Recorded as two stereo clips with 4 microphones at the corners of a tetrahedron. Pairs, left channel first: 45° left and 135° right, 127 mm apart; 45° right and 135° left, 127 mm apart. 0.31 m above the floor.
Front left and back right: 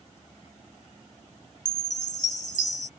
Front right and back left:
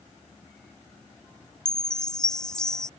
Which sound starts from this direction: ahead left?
A chime, at 1.6 s.